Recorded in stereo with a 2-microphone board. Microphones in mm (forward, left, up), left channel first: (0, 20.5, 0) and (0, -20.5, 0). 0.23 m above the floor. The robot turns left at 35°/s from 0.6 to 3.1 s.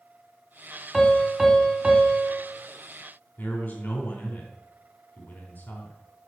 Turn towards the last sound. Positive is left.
turn(degrees=50)  # may be behind; listen again after turning